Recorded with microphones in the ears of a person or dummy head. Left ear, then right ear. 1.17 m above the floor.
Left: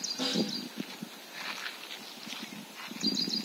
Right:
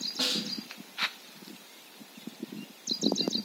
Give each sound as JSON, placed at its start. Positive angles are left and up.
{"t": 0.2, "sound": "a snare drum", "side_deg": -35, "distance_m": 1.8}